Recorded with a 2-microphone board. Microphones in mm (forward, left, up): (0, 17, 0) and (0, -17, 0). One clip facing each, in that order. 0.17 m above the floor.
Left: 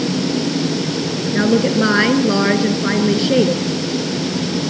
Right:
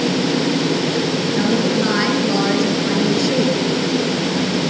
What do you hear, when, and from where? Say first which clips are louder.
1.3 s a woman speaking: left 4 dB; 30° left (ahead or behind), 2.5 m